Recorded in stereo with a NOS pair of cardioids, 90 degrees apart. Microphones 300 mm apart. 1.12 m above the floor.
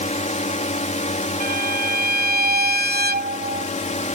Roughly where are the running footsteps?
No running footsteps in this recording.